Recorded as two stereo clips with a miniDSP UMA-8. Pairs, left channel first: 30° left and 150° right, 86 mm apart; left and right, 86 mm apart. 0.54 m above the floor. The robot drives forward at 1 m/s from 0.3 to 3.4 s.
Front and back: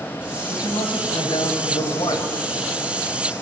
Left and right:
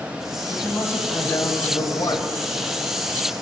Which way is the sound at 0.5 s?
30° left.